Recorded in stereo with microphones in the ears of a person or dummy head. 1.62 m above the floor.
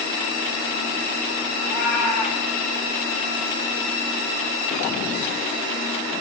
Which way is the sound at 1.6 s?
35° left (ahead or behind).